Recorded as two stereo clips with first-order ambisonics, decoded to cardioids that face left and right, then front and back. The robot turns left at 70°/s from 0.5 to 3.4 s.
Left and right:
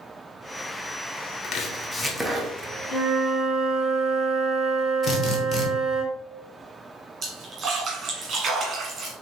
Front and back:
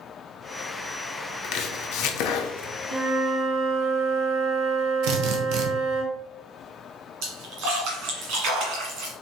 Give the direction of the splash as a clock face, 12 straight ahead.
5 o'clock.